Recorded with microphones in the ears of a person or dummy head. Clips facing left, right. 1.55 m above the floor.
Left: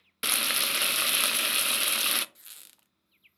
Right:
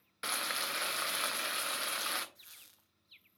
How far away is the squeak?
About 0.6 m.